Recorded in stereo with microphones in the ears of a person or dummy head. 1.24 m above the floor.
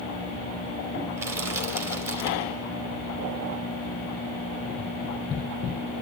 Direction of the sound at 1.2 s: 15° right (ahead or behind).